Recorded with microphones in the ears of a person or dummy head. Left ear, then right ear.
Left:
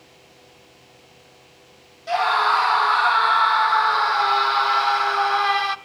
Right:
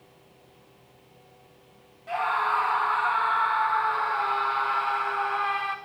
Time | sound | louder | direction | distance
0.0 | a fan | left 6 dB | 60° left (ahead or behind) | 1.1 m
2.1 | a scream | left 7 dB | 30° left (ahead or behind) | 0.5 m